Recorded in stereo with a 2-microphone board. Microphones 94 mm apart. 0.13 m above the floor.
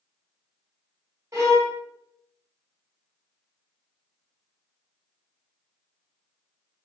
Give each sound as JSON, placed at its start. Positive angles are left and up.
{"t": 1.3, "sound": "a violin", "side_deg": -35, "distance_m": 1.0}